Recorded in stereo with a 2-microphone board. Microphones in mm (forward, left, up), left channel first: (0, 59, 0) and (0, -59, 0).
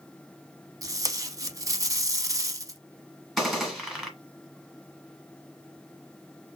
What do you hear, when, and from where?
0.8 s tape being pulled: 30° right (ahead or behind), 0.6 m
3.4 s a gunshot: centre (ahead or behind), 1.6 m